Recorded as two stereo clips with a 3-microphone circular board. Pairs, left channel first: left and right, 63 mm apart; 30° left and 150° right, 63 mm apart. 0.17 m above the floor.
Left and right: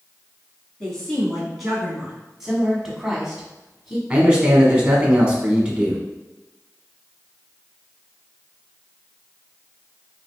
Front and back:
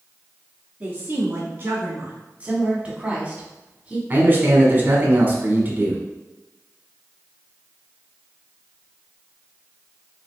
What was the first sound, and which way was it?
A woman speaking, 160° left.